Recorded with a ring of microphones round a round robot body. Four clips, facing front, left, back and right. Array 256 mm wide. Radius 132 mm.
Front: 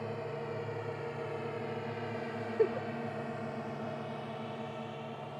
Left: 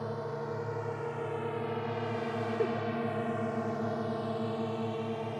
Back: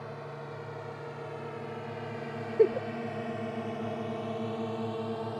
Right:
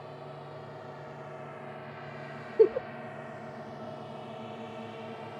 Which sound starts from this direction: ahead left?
A drone, at 0.0 s.